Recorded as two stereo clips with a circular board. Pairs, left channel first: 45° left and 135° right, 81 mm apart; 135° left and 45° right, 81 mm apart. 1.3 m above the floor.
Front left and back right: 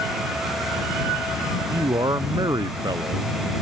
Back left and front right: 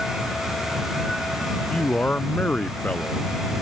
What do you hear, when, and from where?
1.7 s a man speaking: 155° right